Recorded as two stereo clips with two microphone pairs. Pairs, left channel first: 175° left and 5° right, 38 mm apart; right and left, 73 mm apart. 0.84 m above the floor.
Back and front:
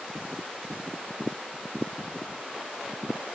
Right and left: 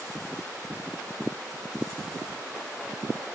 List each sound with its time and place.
Only background noise.